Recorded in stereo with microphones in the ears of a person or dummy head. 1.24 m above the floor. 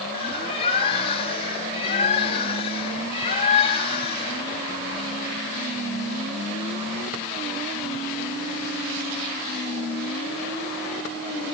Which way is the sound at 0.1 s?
30° left (ahead or behind).